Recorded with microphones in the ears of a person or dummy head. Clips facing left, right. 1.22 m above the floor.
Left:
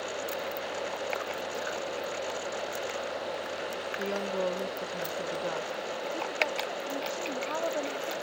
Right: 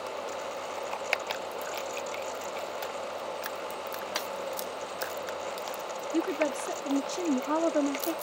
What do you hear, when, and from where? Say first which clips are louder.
4.0 s a woman speaking: left 9 dB; 70° left (ahead or behind)
6.1 s a woman speaking: right 9 dB; 50° right (ahead or behind)